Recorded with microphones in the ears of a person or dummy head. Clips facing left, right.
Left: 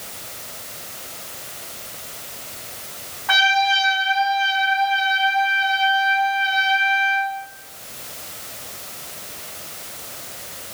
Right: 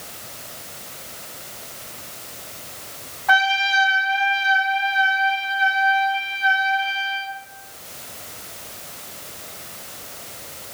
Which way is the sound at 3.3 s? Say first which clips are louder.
Left 1 dB; 75° right (ahead or behind).